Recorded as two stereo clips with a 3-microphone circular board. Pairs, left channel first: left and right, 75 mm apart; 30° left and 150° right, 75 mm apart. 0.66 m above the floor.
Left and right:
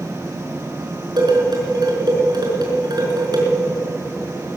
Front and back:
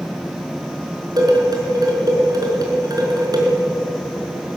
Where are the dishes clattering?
115° right, 5 m.